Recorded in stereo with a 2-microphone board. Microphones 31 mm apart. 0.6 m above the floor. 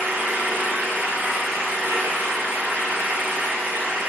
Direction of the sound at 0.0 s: 85° right.